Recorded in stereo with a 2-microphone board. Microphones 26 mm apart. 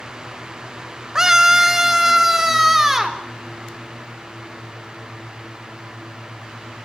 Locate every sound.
1.1 s a scream: 20° right (ahead or behind), 2 m; by 3.2 s 10° right (ahead or behind), 4.5 m